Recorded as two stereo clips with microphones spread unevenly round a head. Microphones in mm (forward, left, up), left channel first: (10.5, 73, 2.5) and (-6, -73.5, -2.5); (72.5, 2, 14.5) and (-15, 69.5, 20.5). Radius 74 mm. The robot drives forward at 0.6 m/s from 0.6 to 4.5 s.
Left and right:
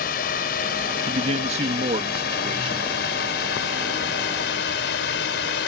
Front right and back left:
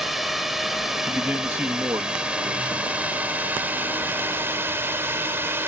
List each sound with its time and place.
0.0 s a drone: 55° left; by 5.7 s 75° left
1.1 s a man speaking: 135° right; by 2.9 s 155° right